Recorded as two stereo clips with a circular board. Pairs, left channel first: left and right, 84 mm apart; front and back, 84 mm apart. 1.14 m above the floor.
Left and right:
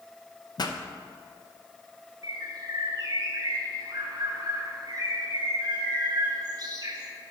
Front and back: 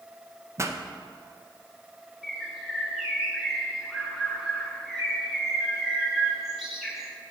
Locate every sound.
0.6 s a pop: 125° left, 0.6 m
2.2 s a bird: 95° right, 1.3 m